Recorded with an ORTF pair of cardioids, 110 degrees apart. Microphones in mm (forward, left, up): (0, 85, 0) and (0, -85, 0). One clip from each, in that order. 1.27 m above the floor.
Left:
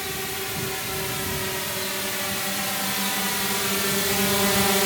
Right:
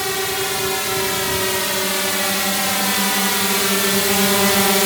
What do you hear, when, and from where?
0.0 s a drone: 55° right; by 4.9 s 30° right